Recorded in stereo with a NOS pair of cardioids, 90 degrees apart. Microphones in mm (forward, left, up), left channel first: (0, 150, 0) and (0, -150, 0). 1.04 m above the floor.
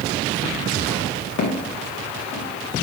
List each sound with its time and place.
1.4 s footsteps: 65° left, 5 m; by 2.5 s 55° left, 5.5 m